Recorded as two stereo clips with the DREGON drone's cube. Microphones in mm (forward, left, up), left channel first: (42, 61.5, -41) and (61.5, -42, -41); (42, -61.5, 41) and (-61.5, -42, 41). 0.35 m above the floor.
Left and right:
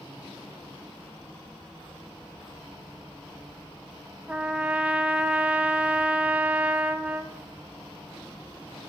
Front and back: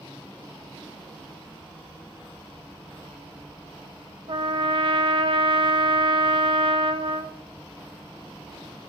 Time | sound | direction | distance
4.3 | a trumpet | 155° right | 0.7 m